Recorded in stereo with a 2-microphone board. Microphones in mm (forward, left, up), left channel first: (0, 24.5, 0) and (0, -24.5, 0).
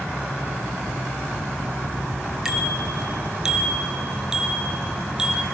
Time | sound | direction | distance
2.5 | a bicycle bell | 10° right (ahead or behind) | 4.5 m